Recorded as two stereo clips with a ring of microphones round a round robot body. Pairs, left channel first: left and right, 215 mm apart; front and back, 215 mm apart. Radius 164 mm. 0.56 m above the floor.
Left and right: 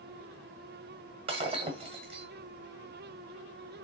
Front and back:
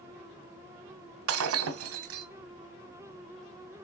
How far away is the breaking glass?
About 1.1 m.